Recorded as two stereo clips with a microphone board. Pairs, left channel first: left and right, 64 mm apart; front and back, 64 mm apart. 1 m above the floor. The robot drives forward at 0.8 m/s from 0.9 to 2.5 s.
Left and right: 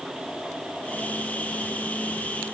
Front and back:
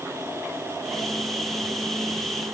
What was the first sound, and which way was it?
Only background noise.